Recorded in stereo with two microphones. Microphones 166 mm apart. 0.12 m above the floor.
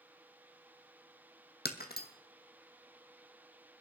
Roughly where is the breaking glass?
Left.